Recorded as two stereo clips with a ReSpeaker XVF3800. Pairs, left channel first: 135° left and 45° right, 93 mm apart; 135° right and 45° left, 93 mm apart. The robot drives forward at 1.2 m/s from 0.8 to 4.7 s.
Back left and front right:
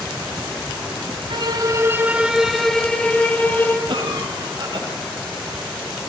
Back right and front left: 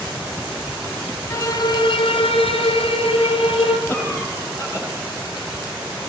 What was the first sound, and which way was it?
A violin, 75° right.